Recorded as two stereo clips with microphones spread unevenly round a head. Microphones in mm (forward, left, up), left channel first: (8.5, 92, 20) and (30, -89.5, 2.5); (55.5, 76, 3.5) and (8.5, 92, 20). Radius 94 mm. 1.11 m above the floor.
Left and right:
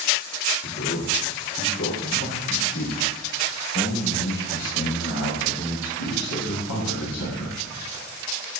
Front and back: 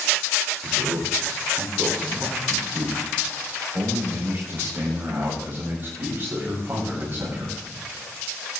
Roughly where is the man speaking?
Behind left.